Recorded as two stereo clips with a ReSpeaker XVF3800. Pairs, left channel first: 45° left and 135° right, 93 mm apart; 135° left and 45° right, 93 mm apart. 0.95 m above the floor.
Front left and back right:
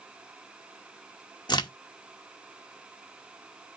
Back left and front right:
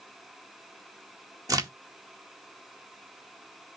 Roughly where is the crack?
Ahead.